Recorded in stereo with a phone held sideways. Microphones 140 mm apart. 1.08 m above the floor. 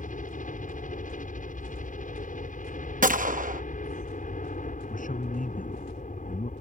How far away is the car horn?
I don't hear a car horn.